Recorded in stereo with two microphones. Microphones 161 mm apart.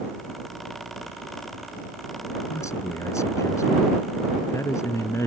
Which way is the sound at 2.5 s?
20° left (ahead or behind).